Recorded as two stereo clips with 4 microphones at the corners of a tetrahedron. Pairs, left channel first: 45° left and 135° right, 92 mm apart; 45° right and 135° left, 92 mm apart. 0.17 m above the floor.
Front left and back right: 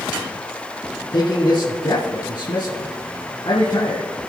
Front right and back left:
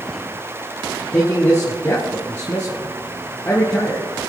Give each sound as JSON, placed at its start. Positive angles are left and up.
{"t": 1.1, "sound": "a man speaking", "azimuth_deg": 15, "distance_m": 2.5}